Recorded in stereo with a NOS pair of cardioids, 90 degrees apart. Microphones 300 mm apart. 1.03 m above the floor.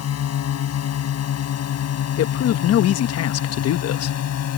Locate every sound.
0.0 s a drone: 60° left
2.2 s a man speaking: 60° left